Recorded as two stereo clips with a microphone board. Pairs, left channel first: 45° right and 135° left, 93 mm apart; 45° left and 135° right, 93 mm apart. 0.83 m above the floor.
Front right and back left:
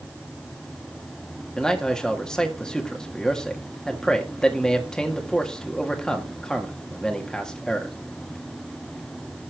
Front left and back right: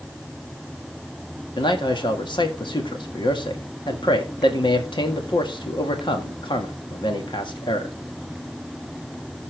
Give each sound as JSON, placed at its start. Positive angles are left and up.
{"t": 1.6, "sound": "a man speaking", "azimuth_deg": 35, "distance_m": 1.8}